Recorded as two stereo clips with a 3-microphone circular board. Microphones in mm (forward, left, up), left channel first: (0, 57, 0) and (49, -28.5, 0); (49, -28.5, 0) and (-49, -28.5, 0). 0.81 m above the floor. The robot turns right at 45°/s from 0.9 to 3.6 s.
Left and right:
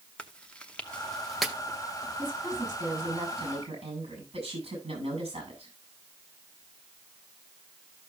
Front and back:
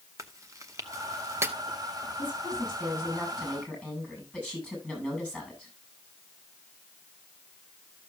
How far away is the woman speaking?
About 7.5 m.